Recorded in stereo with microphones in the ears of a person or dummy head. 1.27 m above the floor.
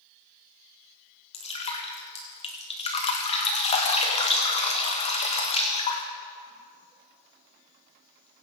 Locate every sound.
1.3 s dripping: 30° left (ahead or behind), 1.7 m